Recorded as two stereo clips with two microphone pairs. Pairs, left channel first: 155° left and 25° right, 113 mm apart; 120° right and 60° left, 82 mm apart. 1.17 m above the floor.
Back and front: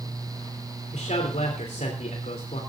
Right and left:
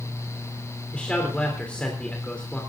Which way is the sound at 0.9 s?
165° left.